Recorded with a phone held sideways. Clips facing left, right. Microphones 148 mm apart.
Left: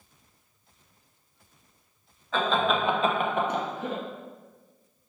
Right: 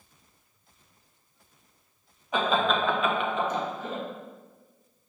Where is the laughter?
15° right (ahead or behind), 0.8 m; by 4.0 s 70° left (ahead or behind), 1.1 m.